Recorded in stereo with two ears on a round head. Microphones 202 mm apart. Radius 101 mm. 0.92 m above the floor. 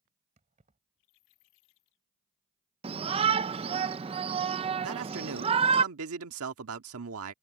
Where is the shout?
25° right (ahead or behind).